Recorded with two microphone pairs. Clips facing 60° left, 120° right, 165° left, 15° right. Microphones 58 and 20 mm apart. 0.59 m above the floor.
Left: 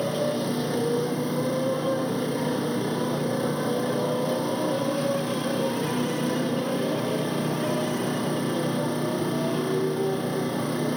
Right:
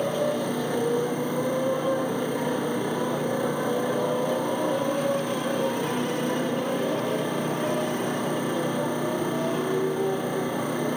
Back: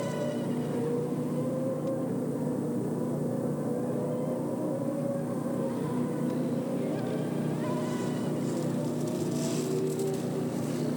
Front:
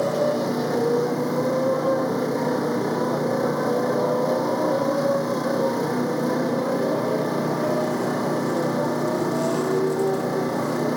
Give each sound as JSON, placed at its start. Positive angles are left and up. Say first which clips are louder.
{"t": 0.0, "sound": "a motorcycle", "louder": "right 1 dB, front 10 dB", "azimuth_deg": -40}